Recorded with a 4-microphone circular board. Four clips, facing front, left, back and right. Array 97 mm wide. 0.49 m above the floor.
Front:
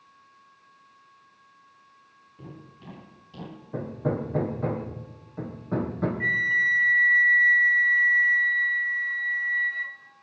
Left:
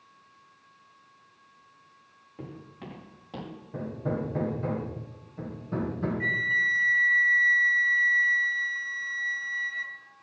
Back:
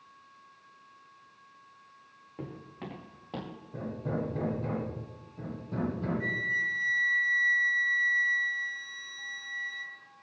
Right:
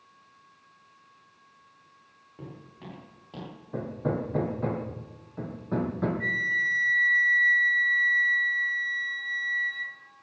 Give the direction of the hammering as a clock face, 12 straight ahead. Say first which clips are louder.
Right 2 dB, front 6 dB; 1 o'clock.